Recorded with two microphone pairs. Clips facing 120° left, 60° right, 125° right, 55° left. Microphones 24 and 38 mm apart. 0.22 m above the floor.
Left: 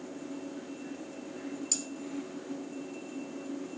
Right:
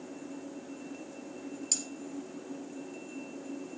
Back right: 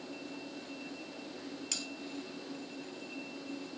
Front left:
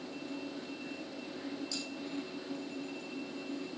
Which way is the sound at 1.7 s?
135° right.